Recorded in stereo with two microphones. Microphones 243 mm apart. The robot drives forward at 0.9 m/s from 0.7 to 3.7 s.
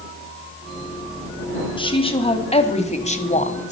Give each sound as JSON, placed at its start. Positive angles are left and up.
{"t": 1.8, "sound": "a woman speaking", "side_deg": 20, "distance_m": 2.5}